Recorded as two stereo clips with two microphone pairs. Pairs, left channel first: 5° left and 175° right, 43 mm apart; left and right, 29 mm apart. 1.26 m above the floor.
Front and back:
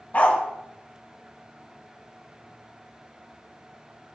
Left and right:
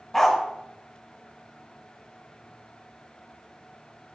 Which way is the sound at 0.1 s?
20° left.